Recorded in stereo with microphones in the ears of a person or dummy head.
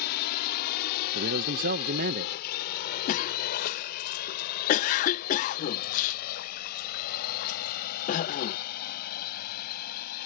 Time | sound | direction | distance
0.0 | a drone | 55° left (ahead or behind) | ?
1.1 | a man speaking | 55° right (ahead or behind) | ?
3.1 | a cough | 45° left (ahead or behind) | ?